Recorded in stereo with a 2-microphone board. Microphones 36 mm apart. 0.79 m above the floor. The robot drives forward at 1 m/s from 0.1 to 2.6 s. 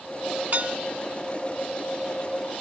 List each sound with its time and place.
0.5 s dishes clattering: 45° right (ahead or behind); by 0.8 s 40° right (ahead or behind)